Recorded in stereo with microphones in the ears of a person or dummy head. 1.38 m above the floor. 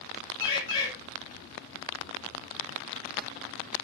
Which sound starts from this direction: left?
A bird, at 0.4 s.